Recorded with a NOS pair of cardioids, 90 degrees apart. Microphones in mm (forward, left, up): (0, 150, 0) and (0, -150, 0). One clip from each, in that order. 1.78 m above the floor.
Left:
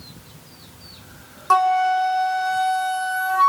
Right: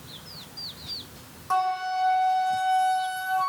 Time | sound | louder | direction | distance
1.5 | a flute | left 9 dB | 50° left | 1.0 m